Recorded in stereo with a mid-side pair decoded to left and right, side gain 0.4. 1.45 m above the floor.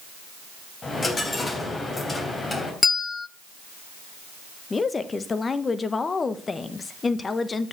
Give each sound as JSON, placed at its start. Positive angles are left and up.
{"t": 0.8, "sound": "a dropped coin", "azimuth_deg": 35, "distance_m": 3.5}
{"t": 2.8, "sound": "a bell", "azimuth_deg": 25, "distance_m": 0.8}
{"t": 4.7, "sound": "a woman speaking", "azimuth_deg": 35, "distance_m": 1.3}